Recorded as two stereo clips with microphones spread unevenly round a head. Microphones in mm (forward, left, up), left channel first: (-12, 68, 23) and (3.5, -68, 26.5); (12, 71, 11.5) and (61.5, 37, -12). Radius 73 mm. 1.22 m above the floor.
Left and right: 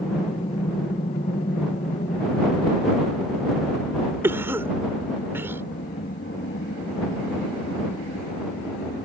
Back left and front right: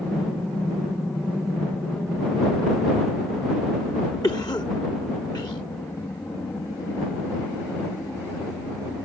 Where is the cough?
160° right.